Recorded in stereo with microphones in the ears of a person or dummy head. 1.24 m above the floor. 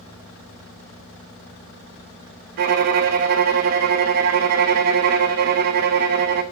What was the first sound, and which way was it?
A violin, 55° right (ahead or behind).